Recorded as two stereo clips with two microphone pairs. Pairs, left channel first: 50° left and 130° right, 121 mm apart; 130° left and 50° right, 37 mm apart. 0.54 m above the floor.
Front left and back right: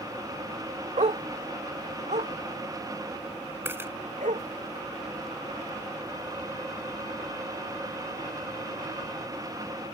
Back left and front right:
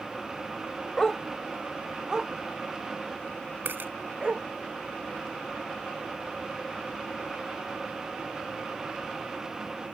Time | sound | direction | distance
1.0 | a dog barking | 155° right | ?
3.6 | a dropped coin | 60° right | ?